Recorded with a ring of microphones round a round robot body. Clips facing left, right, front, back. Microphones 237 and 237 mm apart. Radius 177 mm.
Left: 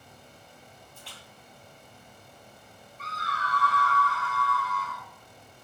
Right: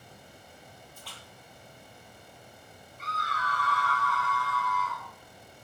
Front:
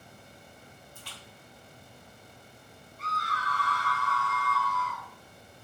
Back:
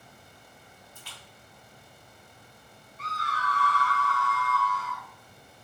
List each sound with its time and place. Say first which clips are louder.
0.9 s a splash: even, front 2 dB; 175° left, 1.7 m
3.0 s a scream: even, back 2 dB; 170° left, 2 m